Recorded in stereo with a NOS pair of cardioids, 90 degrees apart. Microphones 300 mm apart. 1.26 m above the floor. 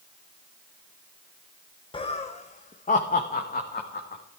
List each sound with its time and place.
1.9 s laughter: 15° left, 0.8 m; by 4.2 s 30° left, 2 m